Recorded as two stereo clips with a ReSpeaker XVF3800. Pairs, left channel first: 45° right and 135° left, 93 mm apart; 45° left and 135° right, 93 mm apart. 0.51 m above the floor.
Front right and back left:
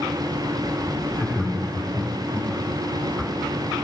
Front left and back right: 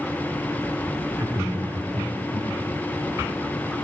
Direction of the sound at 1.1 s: 100° right.